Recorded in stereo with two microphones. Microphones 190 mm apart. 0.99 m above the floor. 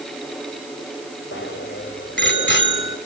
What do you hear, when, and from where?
1.3 s a bicycle bell: 65° left (ahead or behind), 3 m